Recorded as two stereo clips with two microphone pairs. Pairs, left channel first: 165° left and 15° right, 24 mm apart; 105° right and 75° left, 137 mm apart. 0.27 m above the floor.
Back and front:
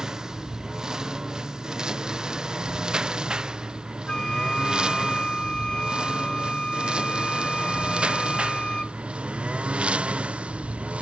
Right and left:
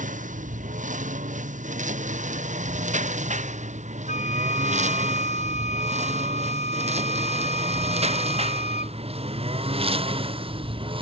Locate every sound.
0.0 s a lawn mower: 55° left; by 11.0 s 25° left
4.1 s a flute: 135° right